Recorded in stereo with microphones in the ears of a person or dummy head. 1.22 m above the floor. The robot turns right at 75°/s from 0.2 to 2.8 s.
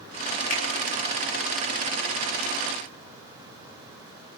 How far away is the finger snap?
About 1.8 m.